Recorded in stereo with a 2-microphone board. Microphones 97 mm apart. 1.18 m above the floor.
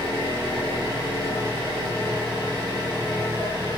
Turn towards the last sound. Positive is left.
turn(degrees=-45)  # may be behind; listen again after turning